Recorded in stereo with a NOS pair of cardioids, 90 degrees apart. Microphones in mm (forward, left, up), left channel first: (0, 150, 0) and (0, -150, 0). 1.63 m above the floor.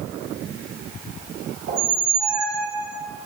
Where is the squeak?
65° right, 2.5 m.